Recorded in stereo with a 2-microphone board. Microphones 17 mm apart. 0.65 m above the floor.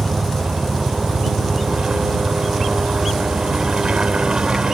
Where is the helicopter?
50° right (ahead or behind).